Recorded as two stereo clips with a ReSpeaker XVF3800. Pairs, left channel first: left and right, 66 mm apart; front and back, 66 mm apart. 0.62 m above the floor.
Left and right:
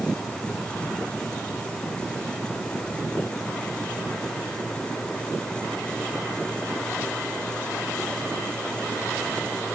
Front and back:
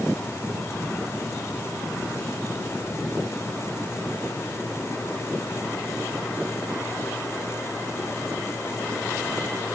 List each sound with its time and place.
Only background noise.